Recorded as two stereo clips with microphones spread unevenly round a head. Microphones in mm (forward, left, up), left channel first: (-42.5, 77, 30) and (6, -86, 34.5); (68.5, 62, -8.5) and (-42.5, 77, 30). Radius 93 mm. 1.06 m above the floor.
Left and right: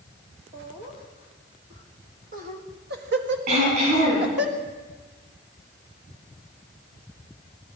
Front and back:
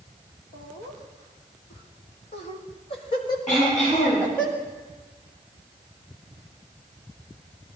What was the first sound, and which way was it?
Laughter, 10° right.